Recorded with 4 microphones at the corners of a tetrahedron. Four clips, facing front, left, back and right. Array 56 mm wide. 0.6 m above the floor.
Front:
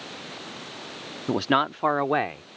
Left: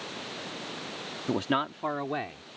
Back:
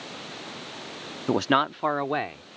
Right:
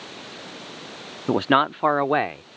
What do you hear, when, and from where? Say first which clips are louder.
1.3 s a man speaking: right 9 dB, even; 110° right; by 2.4 s 65° right